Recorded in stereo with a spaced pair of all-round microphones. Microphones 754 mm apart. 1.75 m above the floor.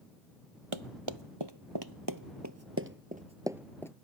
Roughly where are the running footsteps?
Right.